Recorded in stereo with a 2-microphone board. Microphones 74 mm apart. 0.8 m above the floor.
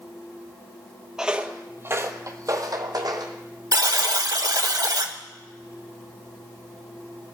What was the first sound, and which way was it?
Footsteps, 5° right (ahead or behind).